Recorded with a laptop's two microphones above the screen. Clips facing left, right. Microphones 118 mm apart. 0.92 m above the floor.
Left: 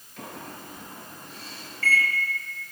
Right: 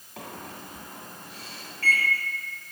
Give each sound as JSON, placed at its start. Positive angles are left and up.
{"t": 0.2, "sound": "a microwave", "side_deg": -65, "distance_m": 1.8}